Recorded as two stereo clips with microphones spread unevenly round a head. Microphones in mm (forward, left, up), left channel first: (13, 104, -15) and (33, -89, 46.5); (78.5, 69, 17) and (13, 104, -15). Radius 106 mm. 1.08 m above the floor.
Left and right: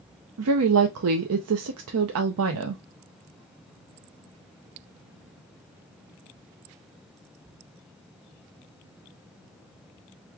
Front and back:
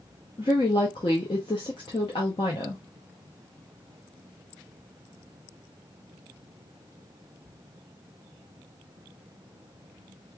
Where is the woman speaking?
85° right, 0.5 m.